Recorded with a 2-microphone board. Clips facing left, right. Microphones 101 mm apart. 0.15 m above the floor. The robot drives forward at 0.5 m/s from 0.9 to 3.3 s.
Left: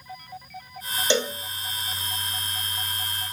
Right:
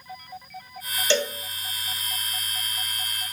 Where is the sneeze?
No sneeze in this recording.